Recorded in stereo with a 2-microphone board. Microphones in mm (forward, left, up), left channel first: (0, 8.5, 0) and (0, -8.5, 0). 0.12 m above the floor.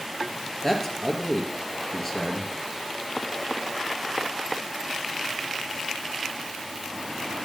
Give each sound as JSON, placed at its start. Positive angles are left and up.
{"t": 0.6, "sound": "a man speaking", "side_deg": 10, "distance_m": 2.5}